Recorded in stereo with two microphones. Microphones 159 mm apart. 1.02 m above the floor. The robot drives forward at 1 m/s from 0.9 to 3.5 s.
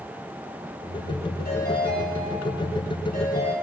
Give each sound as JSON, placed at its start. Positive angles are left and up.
{"t": 1.4, "sound": "a ringtone", "side_deg": 80, "distance_m": 7.5}